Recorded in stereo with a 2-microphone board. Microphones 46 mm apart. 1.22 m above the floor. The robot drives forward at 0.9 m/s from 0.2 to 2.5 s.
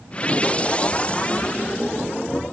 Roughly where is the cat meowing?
No cat meowing in this recording.